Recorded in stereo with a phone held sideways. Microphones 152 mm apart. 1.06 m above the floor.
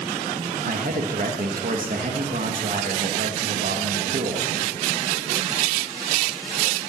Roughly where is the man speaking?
Right.